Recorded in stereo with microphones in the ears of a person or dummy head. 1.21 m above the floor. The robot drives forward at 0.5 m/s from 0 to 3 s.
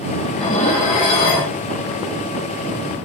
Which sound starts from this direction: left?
Dishes clattering, at 0.3 s.